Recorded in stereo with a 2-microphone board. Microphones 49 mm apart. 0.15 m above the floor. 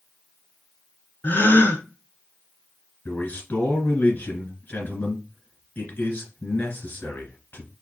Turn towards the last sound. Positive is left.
turn(degrees=40)  # may be behind; listen again after turning